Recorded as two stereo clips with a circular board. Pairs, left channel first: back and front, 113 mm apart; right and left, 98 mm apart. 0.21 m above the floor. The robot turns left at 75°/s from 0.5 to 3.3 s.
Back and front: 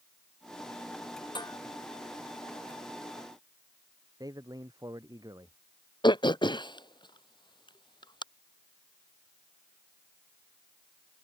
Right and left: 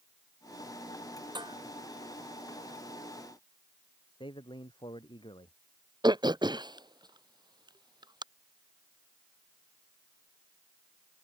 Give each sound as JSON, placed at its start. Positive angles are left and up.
{"t": 1.4, "sound": "dishes clattering", "azimuth_deg": 130}
{"t": 4.2, "sound": "a man speaking", "azimuth_deg": -55}
{"t": 6.0, "sound": "throat clearing", "azimuth_deg": 130}